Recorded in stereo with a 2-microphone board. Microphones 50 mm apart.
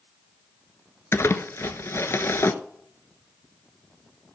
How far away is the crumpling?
About 0.7 m.